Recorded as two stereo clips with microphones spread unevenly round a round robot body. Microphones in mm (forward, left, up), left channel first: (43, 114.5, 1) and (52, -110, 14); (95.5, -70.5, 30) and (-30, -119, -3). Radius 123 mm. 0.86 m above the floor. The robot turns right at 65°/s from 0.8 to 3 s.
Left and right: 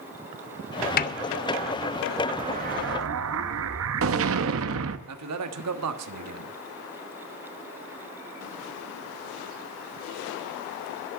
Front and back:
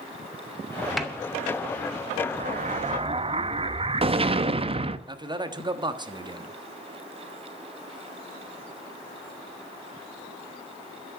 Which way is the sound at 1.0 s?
125° left.